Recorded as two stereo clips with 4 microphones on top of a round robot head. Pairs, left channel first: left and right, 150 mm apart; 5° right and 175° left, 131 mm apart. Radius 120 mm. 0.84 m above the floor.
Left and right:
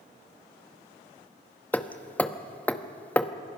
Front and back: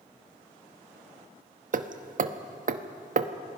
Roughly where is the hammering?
Behind.